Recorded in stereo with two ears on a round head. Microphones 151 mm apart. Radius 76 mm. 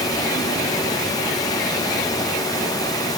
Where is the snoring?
No snoring in this recording.